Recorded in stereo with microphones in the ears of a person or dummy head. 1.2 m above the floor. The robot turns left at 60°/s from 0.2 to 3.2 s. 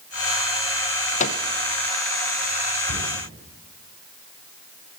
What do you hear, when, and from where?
1.2 s a microwave: 45° left (ahead or behind), 0.8 m; by 1.4 s 55° left (ahead or behind), 0.8 m
2.9 s a cupboard door: 70° right (ahead or behind), 9.5 m; by 3.1 s 55° right (ahead or behind), 9.5 m